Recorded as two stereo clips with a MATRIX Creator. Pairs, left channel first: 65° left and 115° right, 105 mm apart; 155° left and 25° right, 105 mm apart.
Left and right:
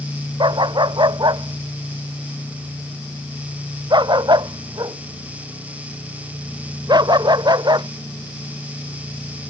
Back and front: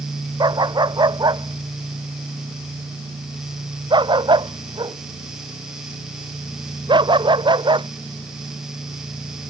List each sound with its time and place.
0.4 s a dog barking: 70° right; by 7.9 s 65° right